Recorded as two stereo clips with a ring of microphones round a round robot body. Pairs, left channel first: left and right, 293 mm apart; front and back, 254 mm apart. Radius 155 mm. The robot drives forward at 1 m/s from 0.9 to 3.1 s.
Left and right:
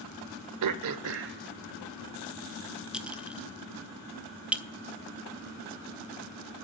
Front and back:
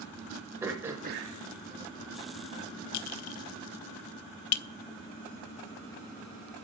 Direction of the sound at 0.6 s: 100° right.